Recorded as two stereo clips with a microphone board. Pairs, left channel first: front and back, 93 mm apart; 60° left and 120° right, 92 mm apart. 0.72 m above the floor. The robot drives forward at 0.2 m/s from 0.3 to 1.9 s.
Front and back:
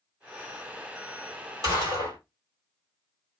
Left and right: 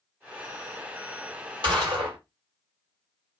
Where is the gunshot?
135° right, 2.0 m; by 2.2 s 140° right, 2 m.